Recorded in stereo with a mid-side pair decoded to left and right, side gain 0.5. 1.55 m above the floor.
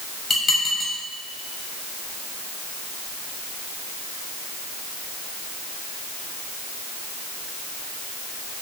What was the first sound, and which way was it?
Dishes clattering, 30° left.